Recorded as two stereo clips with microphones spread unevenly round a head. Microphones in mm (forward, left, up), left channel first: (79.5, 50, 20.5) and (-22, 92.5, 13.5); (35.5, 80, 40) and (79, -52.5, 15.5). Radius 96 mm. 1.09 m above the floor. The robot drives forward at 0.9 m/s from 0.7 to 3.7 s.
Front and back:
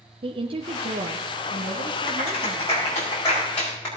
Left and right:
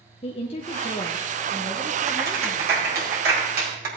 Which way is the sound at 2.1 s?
90° right.